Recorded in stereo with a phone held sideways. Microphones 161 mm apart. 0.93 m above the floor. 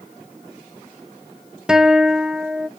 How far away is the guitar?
About 0.5 m.